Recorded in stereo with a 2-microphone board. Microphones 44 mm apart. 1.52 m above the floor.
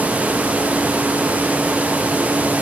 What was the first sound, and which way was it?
Only background noise.